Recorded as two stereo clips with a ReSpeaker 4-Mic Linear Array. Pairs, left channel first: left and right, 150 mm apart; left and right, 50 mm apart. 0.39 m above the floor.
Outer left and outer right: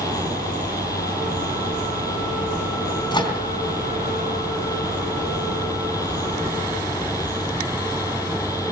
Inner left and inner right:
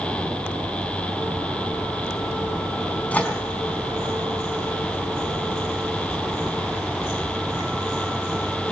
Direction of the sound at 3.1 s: 30° left (ahead or behind).